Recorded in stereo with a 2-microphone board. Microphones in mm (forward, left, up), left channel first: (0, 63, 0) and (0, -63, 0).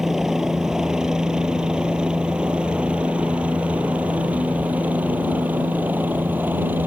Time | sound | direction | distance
0.0 | a helicopter | 5° right (ahead or behind) | ?